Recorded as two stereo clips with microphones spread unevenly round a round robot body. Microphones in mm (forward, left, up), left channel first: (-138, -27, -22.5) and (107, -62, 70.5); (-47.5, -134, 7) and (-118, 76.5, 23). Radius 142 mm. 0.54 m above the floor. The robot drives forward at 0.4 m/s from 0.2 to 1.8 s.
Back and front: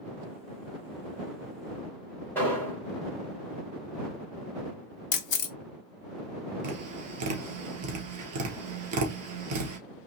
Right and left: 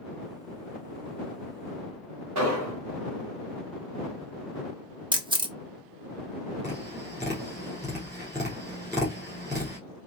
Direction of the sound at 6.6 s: 30° left.